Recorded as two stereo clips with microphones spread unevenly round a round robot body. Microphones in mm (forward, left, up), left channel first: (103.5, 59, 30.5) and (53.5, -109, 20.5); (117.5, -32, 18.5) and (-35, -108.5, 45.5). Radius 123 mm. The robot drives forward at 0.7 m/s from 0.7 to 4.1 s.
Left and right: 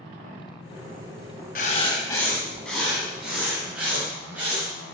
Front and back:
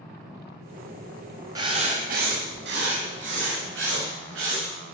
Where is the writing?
130° left, 0.5 m; by 4.7 s 170° left, 2 m.